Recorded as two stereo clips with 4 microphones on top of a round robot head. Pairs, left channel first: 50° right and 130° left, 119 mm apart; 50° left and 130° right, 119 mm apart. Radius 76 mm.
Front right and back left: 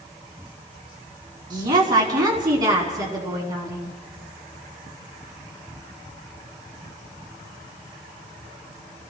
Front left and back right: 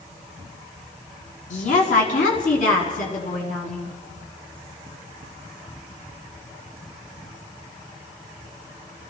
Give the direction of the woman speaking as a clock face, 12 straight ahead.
10 o'clock.